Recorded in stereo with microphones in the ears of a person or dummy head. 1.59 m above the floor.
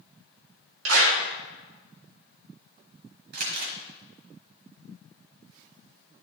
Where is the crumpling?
60° right (ahead or behind), 1.2 m.